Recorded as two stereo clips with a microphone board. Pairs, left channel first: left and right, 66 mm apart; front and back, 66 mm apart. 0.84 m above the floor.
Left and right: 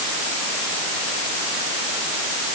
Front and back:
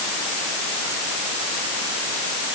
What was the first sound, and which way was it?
Only background noise.